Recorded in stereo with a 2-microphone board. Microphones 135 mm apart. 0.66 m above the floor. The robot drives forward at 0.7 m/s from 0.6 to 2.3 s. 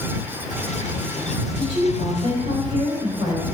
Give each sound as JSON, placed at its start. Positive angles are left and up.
{"t": 1.6, "sound": "a woman speaking", "side_deg": -50, "distance_m": 3.0}